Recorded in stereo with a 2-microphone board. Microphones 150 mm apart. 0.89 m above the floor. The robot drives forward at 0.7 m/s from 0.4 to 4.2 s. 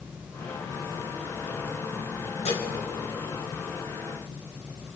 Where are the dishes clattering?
50° left (ahead or behind), 3.5 m; by 2.7 s 45° left (ahead or behind), 4 m.